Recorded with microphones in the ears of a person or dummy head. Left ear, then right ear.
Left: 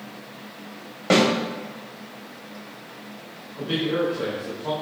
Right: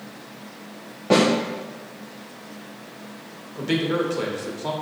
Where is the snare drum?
70° left (ahead or behind), 1.4 m.